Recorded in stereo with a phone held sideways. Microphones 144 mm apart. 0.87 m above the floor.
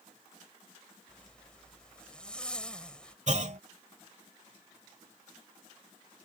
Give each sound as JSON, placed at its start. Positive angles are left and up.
{"t": 1.1, "sound": "a zipper", "side_deg": 5}
{"t": 3.3, "sound": "a clunk", "side_deg": -55}